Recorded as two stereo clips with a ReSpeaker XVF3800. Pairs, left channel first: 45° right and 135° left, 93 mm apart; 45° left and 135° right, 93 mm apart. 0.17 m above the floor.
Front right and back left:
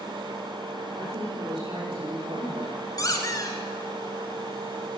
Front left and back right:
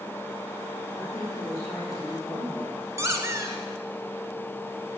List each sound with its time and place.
0.9 s a woman speaking: 125° left, 7.5 m; by 2.8 s 135° left, 8.5 m
3.0 s a squeak: 85° right, 1.7 m